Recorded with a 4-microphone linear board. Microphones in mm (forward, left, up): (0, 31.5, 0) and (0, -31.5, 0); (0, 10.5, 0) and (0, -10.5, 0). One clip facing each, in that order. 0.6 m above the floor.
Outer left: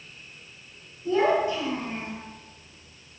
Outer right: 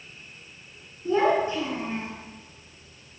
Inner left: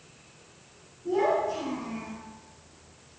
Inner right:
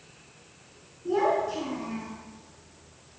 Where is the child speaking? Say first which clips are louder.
Even, even; 25° right (ahead or behind), 5 m; by 2.2 s 30° right (ahead or behind), 4 m.